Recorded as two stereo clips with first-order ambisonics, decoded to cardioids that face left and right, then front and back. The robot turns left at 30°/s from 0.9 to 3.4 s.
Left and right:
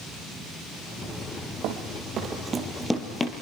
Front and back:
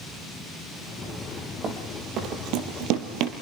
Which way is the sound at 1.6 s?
120° right.